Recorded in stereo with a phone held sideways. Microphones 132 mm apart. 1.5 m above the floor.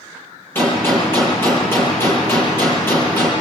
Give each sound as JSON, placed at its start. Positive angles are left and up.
{"t": 0.6, "sound": "a gunshot", "side_deg": 15, "distance_m": 7.5}